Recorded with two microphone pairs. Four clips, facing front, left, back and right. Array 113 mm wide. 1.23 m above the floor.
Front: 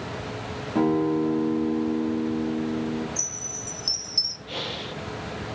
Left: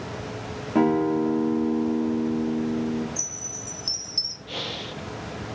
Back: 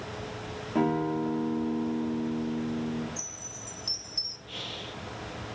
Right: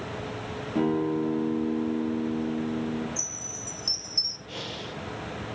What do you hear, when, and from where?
0.8 s a guitar: 85° left, 2.5 m
3.2 s a chime: 25° left, 0.8 m
4.5 s breathing: 35° left, 1.7 m